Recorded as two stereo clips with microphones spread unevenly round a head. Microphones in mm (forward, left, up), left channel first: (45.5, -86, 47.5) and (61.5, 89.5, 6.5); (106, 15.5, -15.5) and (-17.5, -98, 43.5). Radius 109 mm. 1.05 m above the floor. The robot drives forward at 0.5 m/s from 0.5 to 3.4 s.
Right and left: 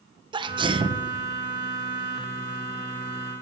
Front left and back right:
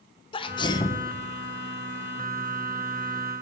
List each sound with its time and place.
0.3 s a sneeze: 50° left, 0.9 m; by 1.0 s 75° left, 0.8 m